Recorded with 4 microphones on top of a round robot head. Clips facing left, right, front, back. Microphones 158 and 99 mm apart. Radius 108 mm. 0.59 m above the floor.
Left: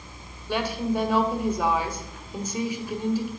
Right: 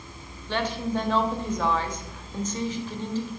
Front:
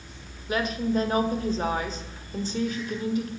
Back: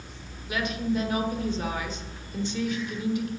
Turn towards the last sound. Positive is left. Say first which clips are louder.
# left 1 dB, front 2 dB
turn(degrees=15)